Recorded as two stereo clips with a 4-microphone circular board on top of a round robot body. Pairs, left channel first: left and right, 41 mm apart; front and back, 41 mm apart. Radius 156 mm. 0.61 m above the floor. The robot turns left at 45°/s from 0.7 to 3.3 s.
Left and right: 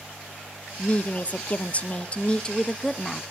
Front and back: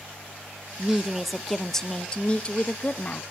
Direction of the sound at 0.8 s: 115° left.